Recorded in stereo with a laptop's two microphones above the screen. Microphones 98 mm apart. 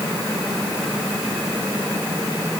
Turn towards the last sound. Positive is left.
No sound to turn to.